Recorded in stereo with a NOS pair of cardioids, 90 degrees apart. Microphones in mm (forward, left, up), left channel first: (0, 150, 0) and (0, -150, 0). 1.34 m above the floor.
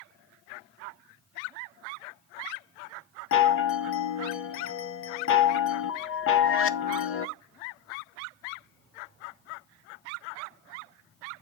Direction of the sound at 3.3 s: 45° left.